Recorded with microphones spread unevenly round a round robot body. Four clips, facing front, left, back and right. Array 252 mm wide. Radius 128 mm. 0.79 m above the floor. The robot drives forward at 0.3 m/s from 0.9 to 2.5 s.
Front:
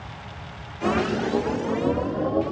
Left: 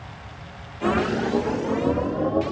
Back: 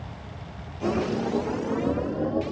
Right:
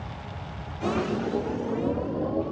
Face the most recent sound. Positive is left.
No sound to turn to.